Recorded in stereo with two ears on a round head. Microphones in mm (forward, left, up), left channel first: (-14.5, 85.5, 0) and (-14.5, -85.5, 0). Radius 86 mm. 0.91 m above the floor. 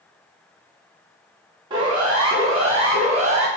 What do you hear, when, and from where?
1.7 s a siren: 25° right (ahead or behind), 8 m; by 3.5 s 35° right (ahead or behind), 7 m